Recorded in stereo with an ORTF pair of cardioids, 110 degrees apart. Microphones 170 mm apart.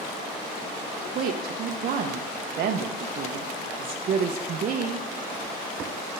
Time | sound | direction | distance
1.1 | a woman speaking | 55° right | 0.6 m